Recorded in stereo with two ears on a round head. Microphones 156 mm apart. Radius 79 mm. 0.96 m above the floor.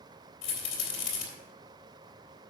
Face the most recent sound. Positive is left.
turn(degrees=40)  # may be behind; listen again after turning